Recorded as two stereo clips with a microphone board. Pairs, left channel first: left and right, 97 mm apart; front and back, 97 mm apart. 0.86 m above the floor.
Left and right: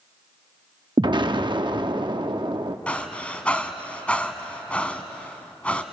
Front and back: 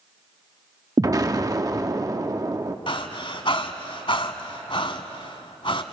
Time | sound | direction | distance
1.0 | an explosion | 125° right | 0.7 m
2.9 | breathing | 15° left | 1.3 m